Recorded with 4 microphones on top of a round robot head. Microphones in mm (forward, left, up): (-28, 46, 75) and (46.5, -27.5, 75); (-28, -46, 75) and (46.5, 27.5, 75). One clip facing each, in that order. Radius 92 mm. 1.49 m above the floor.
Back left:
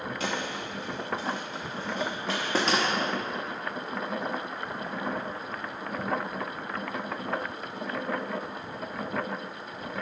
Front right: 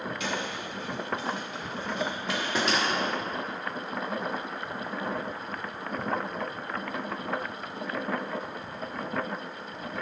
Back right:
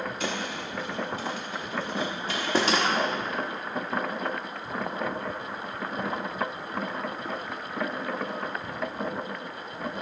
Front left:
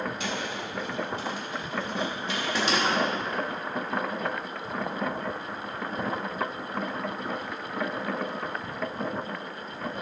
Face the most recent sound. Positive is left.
turn(degrees=-175)